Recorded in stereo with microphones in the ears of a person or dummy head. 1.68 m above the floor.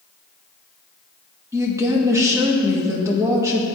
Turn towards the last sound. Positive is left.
turn(degrees=-20)  # may be behind; listen again after turning